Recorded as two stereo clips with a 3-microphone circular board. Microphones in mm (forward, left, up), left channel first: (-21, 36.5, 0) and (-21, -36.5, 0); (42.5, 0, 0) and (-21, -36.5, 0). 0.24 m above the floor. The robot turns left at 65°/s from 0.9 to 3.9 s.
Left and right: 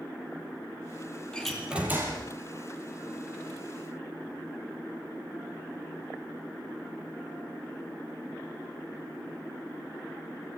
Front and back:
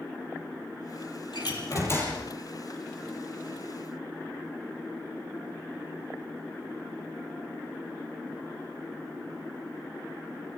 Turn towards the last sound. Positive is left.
turn(degrees=-155)